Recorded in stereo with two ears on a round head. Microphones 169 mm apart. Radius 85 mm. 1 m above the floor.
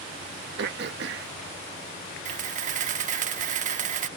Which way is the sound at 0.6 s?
65° right (ahead or behind).